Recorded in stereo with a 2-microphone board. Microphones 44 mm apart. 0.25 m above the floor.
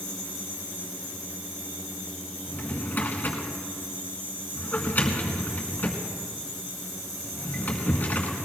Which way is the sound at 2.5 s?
40° left (ahead or behind).